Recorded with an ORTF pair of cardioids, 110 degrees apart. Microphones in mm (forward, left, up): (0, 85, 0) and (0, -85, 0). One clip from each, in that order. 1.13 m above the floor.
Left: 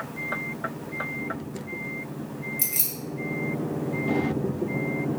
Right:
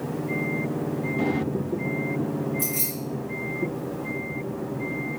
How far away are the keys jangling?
About 1.8 m.